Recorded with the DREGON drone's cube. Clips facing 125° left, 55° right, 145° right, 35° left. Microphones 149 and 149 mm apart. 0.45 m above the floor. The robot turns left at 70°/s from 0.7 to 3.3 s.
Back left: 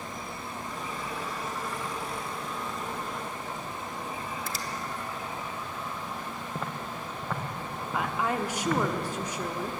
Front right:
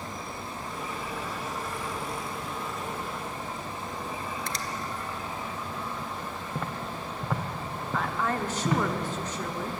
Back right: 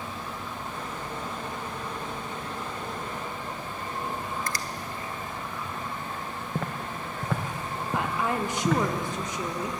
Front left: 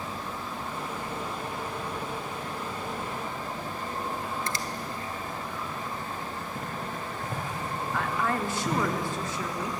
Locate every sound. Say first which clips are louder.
4.5 s a finger snap: front right 1 dB, even; 45° left, 0.9 m
6.5 s footsteps: front right 2 dB, back right 5 dB; 145° right, 1.2 m; by 8.8 s 130° right, 2.5 m
7.9 s a woman speaking: even, back right 2 dB; straight behind, 1.0 m